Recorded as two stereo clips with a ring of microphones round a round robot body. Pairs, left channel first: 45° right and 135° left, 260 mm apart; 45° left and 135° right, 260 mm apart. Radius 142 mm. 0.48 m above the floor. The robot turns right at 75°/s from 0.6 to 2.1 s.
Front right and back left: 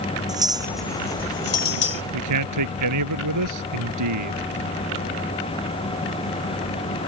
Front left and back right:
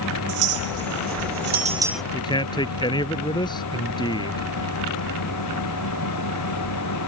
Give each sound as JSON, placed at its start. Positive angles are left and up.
{"t": 0.3, "sound": "a clink", "azimuth_deg": -150}
{"t": 2.1, "sound": "a man speaking", "azimuth_deg": 120}